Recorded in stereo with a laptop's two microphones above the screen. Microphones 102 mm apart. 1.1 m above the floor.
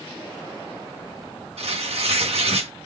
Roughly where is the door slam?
I don't hear a door slam.